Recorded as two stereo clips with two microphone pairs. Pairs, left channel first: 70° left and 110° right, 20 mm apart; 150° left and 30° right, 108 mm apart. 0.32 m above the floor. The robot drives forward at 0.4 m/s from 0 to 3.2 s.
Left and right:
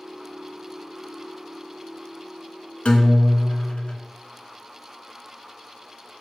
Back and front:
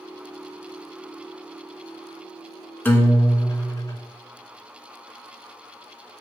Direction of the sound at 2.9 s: 80° left.